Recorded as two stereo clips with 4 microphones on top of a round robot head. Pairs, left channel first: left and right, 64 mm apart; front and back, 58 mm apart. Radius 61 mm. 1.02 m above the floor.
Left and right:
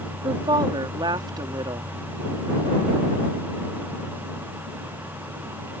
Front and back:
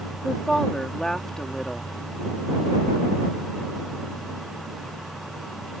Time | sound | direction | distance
0.2 | a woman speaking | 80° right | ?